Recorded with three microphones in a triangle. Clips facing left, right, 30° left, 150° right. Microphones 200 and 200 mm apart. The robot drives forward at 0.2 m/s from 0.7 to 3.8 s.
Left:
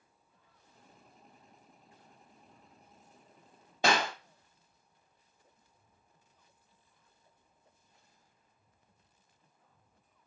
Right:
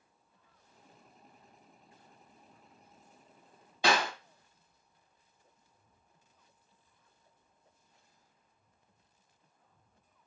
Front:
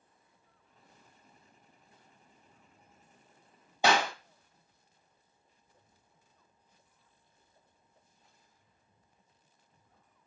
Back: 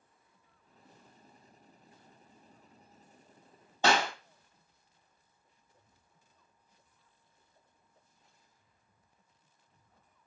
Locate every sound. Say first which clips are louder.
3.8 s a clap: even, front 1 dB; 100° left, 0.9 m